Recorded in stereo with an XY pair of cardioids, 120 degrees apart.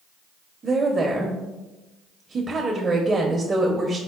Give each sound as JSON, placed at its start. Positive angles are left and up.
{"t": 0.6, "sound": "a woman speaking", "azimuth_deg": -30, "distance_m": 0.5}